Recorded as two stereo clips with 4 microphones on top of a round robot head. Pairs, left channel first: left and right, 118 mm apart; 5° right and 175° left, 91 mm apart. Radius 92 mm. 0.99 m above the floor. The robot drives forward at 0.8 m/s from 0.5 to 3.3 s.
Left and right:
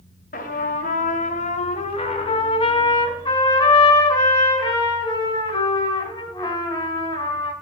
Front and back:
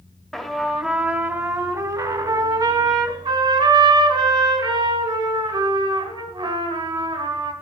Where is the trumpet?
80° left, 1.5 m; by 7.5 s 145° left, 2.5 m.